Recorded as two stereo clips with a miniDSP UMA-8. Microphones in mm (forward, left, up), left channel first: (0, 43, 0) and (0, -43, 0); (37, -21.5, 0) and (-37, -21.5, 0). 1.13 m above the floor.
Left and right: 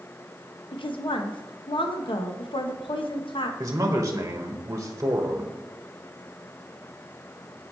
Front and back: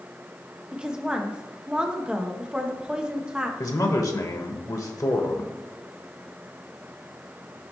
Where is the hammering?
No hammering in this recording.